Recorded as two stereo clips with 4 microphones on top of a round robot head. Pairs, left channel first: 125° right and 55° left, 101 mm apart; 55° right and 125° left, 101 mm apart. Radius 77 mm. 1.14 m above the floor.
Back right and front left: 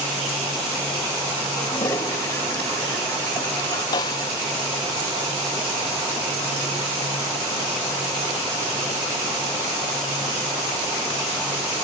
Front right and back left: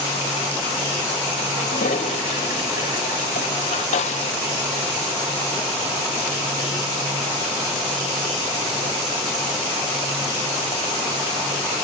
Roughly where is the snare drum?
Right.